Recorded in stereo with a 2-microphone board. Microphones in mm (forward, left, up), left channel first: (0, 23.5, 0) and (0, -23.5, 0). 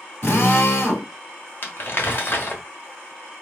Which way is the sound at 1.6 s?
50° left (ahead or behind).